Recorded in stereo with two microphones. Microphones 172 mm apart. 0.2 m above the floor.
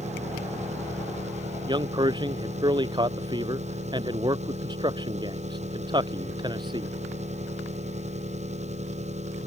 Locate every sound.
0.0 s an engine running: 40° right (ahead or behind)
1.7 s a man speaking: 25° right (ahead or behind)